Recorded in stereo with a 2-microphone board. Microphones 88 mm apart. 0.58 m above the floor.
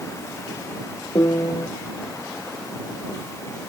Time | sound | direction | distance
1.1 | a piano | 50° left (ahead or behind) | ?